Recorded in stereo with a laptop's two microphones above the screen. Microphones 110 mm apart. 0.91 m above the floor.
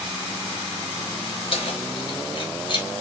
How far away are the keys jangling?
About 3.5 m.